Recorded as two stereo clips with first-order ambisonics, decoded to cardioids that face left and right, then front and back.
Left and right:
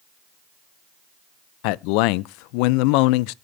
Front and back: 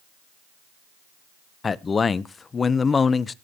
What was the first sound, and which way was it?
A man speaking, 75° left.